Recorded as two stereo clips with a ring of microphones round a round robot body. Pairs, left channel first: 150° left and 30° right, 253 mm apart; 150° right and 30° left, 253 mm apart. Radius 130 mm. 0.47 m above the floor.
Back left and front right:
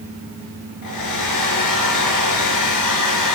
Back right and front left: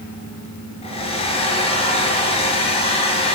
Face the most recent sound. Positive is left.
turn(degrees=140)